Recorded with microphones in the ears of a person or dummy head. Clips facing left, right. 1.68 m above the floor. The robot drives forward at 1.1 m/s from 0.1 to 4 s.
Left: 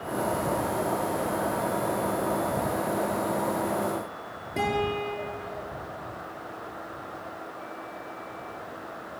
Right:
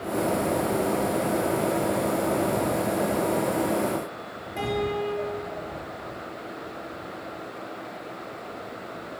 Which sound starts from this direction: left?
A guitar, at 4.6 s.